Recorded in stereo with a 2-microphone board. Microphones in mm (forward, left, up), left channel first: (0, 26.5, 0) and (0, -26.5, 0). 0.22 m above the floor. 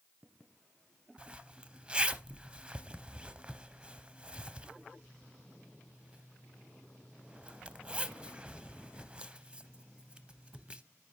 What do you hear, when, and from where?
1.2 s a zipper: 20° right (ahead or behind), 0.5 m